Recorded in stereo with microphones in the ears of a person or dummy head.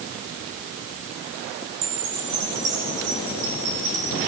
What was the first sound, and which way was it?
A chime, 85° right.